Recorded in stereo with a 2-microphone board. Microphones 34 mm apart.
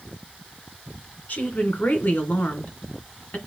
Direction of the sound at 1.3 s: 55° left (ahead or behind).